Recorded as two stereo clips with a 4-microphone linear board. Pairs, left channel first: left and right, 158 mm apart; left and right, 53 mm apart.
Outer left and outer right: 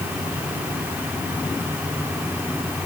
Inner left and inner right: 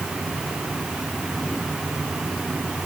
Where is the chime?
I don't hear a chime.